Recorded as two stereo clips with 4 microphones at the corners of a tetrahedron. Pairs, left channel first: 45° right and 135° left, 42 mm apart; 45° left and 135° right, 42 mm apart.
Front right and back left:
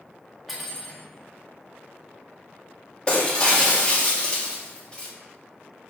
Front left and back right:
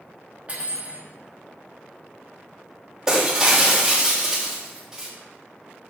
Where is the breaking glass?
75° right, 1.0 m.